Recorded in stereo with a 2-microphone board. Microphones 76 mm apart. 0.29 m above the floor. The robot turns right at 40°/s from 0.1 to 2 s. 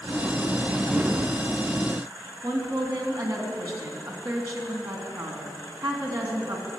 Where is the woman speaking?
50° right (ahead or behind), 2.5 m.